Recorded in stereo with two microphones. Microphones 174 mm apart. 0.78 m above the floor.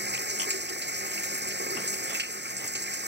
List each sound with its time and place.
0.0 s running water: 75° right (ahead or behind)